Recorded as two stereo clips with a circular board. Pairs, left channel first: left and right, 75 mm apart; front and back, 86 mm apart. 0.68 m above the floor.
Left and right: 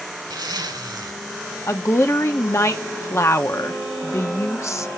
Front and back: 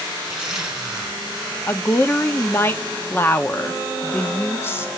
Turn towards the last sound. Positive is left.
turn(degrees=55)